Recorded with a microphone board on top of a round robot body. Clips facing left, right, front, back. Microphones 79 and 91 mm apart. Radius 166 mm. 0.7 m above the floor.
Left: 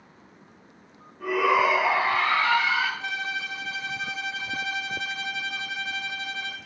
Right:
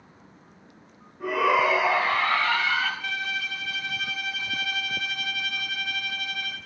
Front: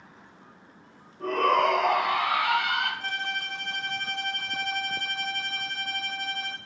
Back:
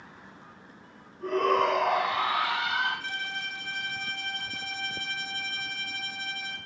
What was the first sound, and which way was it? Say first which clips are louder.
A shout: even, front 2 dB; 15° right.